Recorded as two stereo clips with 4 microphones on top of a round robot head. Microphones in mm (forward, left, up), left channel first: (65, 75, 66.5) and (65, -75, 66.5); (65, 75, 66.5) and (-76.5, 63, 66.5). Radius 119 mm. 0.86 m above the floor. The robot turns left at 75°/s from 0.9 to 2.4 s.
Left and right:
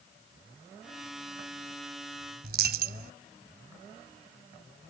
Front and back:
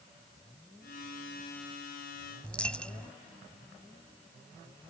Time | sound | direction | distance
2.4 | a dropped coin | 80° right | ?